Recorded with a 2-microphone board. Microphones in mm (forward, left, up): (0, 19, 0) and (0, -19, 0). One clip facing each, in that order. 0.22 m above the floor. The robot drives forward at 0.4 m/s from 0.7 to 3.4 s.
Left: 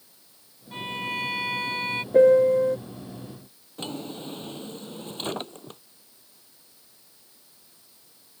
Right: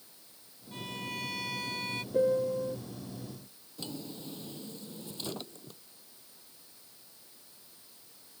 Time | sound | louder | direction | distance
0.7 | a violin | left 8 dB | 40° left (ahead or behind) | ?
2.1 | a piano | left 12 dB | 65° left (ahead or behind) | ?
3.8 | a drawer | left 7 dB | 50° left (ahead or behind) | ?